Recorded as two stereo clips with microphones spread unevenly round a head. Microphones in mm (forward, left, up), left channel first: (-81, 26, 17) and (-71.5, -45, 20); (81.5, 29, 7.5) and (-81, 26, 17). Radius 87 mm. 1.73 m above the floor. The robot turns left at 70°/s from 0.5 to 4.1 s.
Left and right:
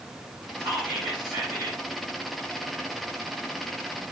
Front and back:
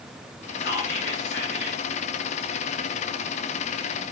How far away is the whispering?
About 1.0 m.